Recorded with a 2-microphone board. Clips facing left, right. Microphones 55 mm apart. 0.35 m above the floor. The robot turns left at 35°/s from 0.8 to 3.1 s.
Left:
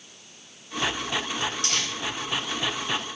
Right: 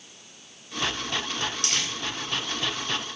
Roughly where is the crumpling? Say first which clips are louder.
Left 1 dB; right.